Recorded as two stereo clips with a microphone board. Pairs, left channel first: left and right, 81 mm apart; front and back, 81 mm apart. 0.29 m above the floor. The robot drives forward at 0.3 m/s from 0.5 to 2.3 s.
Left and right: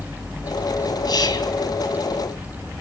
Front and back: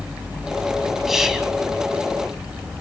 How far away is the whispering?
About 2.5 m.